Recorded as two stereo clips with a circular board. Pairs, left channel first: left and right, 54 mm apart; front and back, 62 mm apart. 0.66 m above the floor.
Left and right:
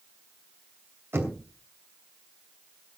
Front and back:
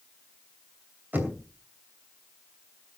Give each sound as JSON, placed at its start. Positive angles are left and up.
{"t": 1.1, "sound": "knocking", "azimuth_deg": -125, "distance_m": 2.5}